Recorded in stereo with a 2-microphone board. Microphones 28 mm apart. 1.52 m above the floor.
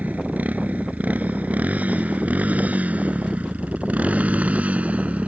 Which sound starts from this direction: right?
A motorcycle, at 0.0 s.